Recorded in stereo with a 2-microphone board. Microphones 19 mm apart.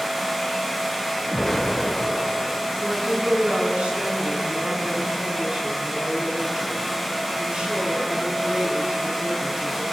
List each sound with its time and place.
1.3 s an explosion: 20° left (ahead or behind), 1.3 m
2.8 s a woman speaking: 75° right (ahead or behind), 6.5 m